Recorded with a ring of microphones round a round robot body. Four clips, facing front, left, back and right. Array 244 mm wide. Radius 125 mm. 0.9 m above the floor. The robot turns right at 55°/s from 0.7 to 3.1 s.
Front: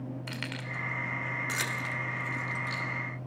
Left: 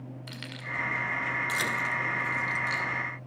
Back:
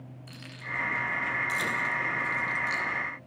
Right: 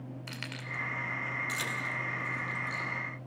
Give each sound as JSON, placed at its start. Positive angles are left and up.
{"t": 0.3, "sound": "keys jangling", "azimuth_deg": -10, "distance_m": 2.5}